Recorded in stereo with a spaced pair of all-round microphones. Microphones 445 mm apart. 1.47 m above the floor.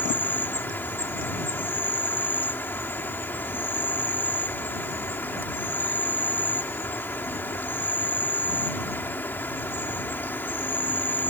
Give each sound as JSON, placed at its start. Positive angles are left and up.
{"t": 0.0, "sound": "an insect", "side_deg": 5}